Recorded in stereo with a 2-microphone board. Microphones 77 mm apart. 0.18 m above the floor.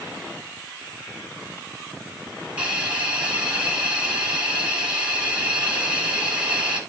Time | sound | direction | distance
2.6 | a hiss | 15° right (ahead or behind) | 3.5 m